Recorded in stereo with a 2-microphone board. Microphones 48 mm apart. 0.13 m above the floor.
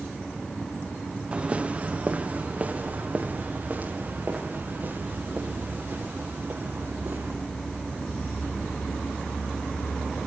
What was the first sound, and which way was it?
Footsteps, 25° right (ahead or behind).